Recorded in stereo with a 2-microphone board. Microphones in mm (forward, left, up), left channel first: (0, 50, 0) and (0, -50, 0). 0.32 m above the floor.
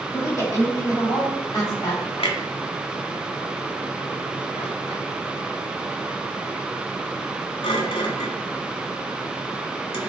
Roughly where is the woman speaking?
Left.